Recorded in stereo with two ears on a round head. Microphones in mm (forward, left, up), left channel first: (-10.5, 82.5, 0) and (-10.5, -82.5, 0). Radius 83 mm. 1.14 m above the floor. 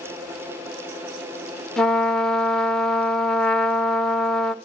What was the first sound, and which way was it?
A trumpet, 5° left (ahead or behind).